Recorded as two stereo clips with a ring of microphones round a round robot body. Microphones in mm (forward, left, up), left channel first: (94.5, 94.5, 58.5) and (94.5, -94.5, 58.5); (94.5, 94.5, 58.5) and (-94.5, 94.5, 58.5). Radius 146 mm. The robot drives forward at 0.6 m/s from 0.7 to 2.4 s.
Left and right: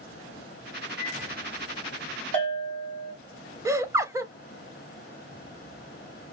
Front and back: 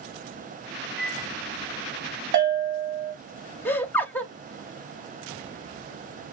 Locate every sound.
1.0 s a microwave: 175° right, 0.9 m
2.3 s a bell: 155° left, 1.4 m; by 3.1 s 160° left, 1.4 m
3.6 s laughter: 55° right, 0.6 m